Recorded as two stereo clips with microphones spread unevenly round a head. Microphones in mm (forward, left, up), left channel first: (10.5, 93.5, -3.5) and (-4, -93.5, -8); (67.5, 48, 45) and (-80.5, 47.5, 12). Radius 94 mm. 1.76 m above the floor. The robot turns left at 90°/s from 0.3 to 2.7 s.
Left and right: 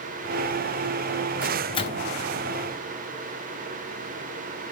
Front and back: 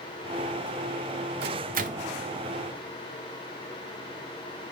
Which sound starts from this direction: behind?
A microwave, at 1.4 s.